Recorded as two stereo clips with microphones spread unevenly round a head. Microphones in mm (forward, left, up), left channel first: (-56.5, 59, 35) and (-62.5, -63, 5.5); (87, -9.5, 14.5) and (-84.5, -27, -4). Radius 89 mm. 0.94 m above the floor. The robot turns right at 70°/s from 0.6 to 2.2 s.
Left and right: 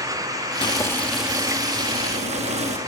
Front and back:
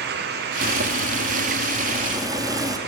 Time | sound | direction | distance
0.6 | boiling | 140° left | 1.7 m